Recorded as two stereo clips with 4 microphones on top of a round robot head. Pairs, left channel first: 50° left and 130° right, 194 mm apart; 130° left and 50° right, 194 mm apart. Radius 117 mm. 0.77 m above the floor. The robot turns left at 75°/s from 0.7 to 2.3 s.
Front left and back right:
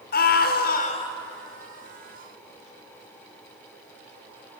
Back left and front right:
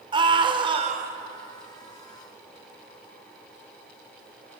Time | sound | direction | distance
0.1 | a scream | 15° left | 2.5 m